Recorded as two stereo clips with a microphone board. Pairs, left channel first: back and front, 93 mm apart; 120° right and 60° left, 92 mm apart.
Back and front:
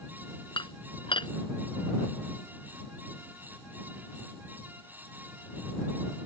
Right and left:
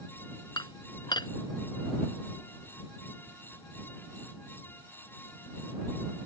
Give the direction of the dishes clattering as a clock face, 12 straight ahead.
5 o'clock.